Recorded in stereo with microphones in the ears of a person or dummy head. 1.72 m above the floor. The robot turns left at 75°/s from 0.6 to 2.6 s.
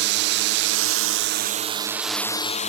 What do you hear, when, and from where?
0.0 s a drone: 65° right; by 2.7 s 145° left